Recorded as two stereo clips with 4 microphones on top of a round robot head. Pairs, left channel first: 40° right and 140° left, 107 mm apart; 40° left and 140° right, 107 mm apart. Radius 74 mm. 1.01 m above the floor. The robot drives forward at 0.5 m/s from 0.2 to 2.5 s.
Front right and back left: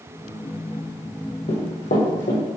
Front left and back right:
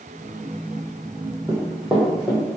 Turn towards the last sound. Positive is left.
turn(degrees=-50)